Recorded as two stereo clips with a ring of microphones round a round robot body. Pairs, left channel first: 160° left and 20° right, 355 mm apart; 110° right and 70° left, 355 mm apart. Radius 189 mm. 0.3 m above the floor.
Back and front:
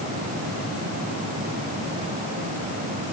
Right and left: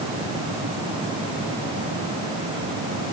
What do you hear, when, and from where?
Only background noise.